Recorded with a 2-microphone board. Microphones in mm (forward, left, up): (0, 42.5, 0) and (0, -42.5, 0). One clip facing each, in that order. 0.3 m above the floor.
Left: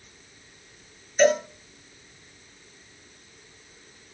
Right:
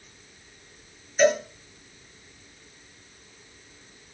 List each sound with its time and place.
1.2 s a cowbell: 10° right (ahead or behind), 4 m